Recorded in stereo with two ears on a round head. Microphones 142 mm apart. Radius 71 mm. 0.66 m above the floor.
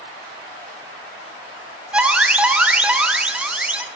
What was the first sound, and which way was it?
An alarm, 5° right (ahead or behind).